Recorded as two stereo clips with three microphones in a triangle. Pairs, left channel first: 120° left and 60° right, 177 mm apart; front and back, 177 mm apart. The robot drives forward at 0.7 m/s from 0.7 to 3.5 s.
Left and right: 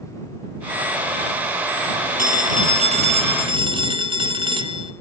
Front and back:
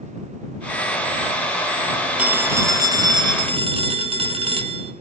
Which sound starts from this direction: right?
A phone ringing, at 2.2 s.